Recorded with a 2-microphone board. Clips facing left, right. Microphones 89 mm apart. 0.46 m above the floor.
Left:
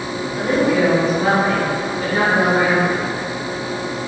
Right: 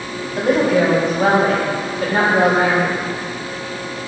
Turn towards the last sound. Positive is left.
turn(degrees=-60)  # may be behind; listen again after turning